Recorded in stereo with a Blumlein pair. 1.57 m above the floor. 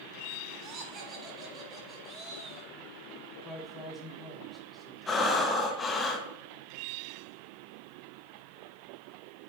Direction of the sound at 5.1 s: 15° left.